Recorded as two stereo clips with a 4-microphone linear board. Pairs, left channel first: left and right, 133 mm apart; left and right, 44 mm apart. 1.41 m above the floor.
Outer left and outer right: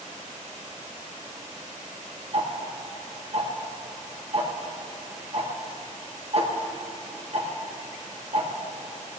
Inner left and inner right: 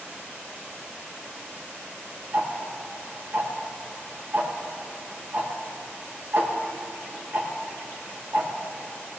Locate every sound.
2.3 s ticking: 50° right (ahead or behind), 1.3 m